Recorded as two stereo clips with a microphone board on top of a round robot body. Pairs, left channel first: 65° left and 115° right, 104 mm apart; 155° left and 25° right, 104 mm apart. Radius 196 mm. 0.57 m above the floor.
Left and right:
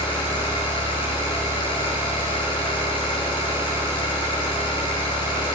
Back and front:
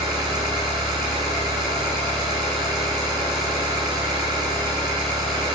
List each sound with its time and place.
0.0 s an engine running: 25° left, 8 m